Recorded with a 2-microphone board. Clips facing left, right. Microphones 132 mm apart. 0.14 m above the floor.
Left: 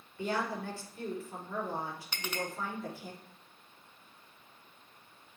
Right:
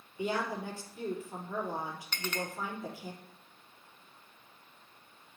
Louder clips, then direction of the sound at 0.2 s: Right 1 dB; 15° right (ahead or behind).